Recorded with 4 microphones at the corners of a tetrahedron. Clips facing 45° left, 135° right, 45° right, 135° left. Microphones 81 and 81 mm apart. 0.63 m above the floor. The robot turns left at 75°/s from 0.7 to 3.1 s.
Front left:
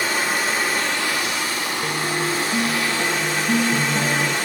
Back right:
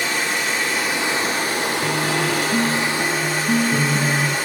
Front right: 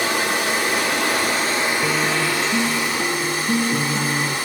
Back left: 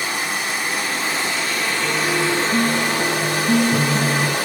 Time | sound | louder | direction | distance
0.0 | running water | front left 1 dB, front right 3 dB | 40° right | 1.4 m
1.8 | a guitar | back right 1 dB, even | 105° right | 1.8 m